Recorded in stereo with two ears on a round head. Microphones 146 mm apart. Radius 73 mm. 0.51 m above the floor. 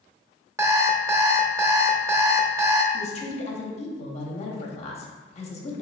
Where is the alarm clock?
15° right (ahead or behind), 0.5 m.